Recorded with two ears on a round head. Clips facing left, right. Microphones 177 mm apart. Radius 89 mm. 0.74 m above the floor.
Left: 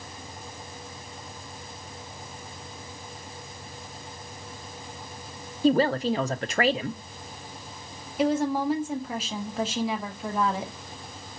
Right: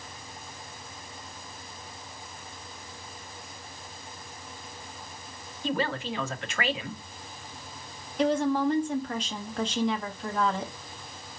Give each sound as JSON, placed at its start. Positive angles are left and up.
{"t": 5.6, "sound": "a woman speaking", "side_deg": 35, "distance_m": 0.5}
{"t": 8.2, "sound": "a woman speaking", "side_deg": 5, "distance_m": 0.9}